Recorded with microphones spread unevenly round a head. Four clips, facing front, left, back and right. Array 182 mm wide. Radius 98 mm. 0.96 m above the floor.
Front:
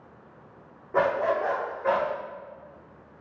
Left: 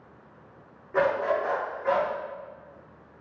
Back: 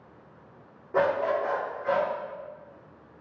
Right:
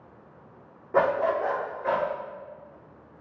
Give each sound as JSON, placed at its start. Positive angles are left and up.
{"t": 0.9, "sound": "a dog barking", "azimuth_deg": -100, "distance_m": 0.5}